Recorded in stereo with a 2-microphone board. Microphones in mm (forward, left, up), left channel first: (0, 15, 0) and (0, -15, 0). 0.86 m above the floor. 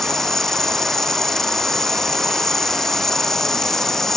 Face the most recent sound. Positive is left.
turn(degrees=15)  # may be behind; listen again after turning